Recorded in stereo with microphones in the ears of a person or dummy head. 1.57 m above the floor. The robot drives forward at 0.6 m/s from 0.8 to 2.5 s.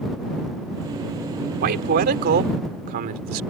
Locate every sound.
1.6 s a man speaking: 60° right (ahead or behind); by 3.4 s 55° right (ahead or behind)